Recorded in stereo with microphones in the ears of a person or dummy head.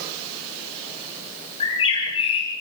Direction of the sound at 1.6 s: 30° left (ahead or behind).